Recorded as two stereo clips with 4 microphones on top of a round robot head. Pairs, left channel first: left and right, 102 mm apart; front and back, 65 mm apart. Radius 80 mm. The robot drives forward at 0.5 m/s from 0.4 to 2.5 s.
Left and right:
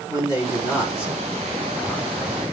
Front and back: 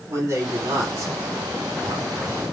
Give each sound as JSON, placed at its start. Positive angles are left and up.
{"t": 0.1, "sound": "a man speaking", "azimuth_deg": 145, "distance_m": 4.0}